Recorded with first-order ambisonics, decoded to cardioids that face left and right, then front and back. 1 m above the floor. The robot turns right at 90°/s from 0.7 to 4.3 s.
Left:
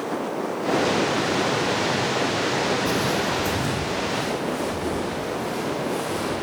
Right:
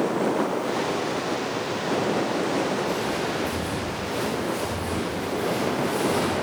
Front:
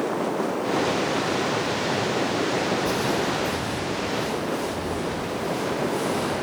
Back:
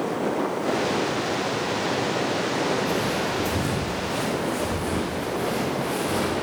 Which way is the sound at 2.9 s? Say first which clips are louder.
Left 3 dB, front 1 dB; 55° left.